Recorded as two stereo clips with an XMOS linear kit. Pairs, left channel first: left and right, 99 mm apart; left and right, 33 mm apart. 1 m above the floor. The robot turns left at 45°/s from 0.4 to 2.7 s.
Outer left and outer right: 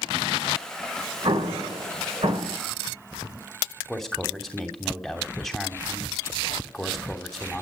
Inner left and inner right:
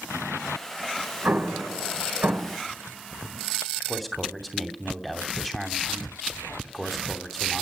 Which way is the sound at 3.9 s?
Centre (ahead or behind).